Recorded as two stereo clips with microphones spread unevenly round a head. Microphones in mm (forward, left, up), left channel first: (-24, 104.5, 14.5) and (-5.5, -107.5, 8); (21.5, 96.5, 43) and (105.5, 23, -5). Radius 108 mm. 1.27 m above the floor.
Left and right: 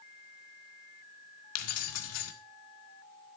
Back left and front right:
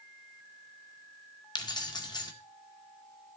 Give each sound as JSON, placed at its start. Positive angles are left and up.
{"t": 1.6, "sound": "keys jangling", "azimuth_deg": 95, "distance_m": 1.8}